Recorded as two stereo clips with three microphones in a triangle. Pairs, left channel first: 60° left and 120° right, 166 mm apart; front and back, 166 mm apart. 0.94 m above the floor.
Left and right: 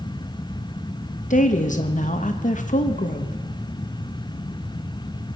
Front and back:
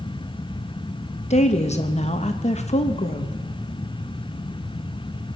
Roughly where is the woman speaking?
Ahead left.